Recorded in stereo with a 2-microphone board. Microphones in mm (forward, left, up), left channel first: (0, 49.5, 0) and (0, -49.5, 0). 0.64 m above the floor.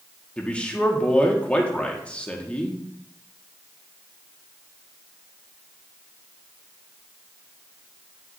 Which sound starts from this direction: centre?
A man speaking, at 0.4 s.